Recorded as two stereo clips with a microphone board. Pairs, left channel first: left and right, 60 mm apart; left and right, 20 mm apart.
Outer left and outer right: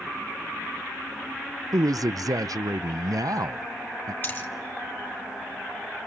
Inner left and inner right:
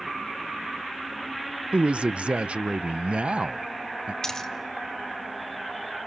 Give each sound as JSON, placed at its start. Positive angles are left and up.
{"t": 1.7, "sound": "a man speaking", "side_deg": -75, "distance_m": 0.5}
{"t": 4.2, "sound": "a dropped coin", "side_deg": 40, "distance_m": 1.3}